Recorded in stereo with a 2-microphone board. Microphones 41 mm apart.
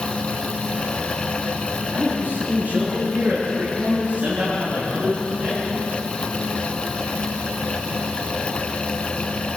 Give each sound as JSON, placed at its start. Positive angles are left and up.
{"t": 1.9, "sound": "a man speaking", "side_deg": -50, "distance_m": 9.5}